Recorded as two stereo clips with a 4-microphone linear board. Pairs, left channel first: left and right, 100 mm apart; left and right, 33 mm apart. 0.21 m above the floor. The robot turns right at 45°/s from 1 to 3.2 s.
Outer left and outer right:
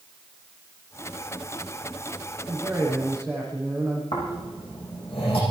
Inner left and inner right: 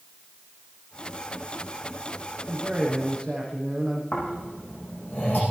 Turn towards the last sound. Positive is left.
turn(degrees=70)  # may be behind; listen again after turning